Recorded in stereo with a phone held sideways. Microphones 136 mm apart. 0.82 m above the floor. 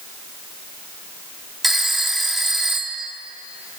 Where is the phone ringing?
Centre (ahead or behind), 1.3 m.